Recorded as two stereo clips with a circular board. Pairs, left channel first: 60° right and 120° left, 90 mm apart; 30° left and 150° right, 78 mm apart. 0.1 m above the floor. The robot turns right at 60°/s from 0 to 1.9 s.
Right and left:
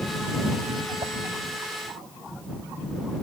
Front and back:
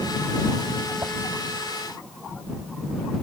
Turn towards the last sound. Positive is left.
turn(degrees=-155)